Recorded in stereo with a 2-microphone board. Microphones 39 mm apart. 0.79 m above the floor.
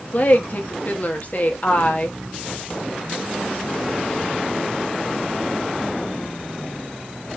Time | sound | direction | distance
0.1 | a woman speaking | 50° left (ahead or behind) | 1.3 m